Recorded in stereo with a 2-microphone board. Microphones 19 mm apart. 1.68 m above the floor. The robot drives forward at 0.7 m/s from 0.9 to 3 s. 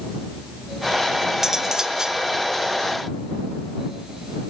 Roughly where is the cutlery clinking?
Centre.